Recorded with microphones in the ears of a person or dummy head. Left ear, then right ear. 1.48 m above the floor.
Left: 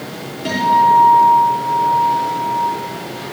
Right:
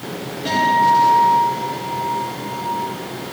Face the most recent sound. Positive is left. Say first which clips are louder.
# left 2 dB
turn(degrees=25)  # may be behind; listen again after turning